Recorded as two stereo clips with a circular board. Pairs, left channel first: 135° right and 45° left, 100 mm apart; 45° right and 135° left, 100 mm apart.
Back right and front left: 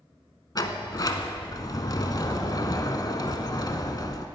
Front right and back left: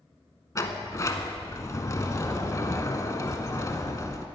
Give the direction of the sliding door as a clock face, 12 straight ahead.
3 o'clock.